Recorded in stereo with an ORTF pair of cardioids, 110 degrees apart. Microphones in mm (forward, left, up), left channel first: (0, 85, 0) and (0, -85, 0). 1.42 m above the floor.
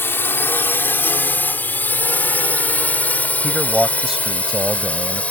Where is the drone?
15° left; by 5.3 s 10° left.